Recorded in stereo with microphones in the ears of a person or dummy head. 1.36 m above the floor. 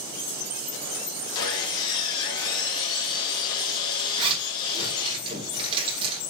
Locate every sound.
1.4 s sawing: 25° left (ahead or behind), 2.5 m
4.2 s a zipper: 30° right (ahead or behind), 3 m